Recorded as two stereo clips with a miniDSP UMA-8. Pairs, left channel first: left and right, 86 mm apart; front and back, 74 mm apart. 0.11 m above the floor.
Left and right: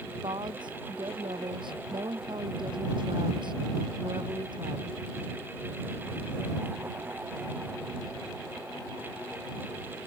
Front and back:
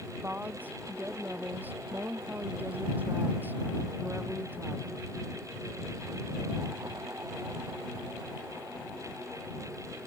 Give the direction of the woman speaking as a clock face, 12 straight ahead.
4 o'clock.